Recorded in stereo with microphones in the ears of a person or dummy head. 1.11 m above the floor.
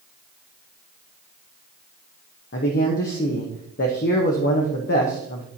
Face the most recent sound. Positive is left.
turn(degrees=55)  # may be behind; listen again after turning